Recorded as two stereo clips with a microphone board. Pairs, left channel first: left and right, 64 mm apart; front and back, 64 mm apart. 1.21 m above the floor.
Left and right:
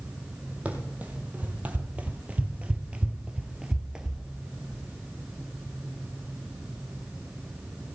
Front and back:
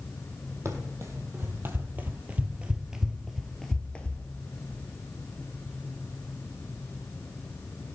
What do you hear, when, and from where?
0.7 s running footsteps: 150° right, 2 m; by 4.2 s 20° right, 1.3 m